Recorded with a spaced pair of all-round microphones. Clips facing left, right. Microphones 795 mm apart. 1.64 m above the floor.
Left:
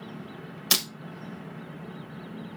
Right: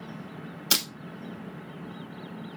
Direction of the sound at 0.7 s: 35° left (ahead or behind).